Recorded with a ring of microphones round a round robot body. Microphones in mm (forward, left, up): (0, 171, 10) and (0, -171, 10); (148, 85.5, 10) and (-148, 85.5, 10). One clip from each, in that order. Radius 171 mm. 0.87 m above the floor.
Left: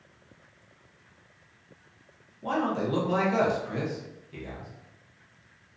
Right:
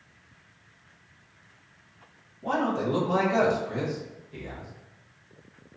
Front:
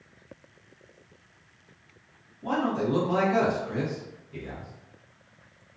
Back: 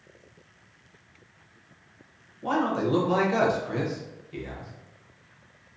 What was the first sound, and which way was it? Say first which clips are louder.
A man speaking: right 1 dB, back 2 dB; 135° left.